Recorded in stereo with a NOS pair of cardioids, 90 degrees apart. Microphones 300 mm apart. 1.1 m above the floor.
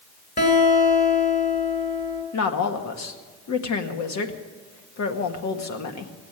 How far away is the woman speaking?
About 1.8 m.